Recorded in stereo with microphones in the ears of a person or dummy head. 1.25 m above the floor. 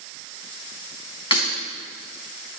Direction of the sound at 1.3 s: 25° left (ahead or behind).